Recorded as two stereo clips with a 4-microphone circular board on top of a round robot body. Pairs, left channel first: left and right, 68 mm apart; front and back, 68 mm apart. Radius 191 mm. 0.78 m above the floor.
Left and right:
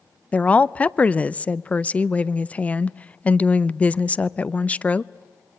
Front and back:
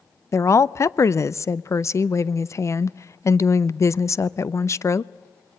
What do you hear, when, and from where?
0.3 s a woman speaking: 25° left, 0.7 m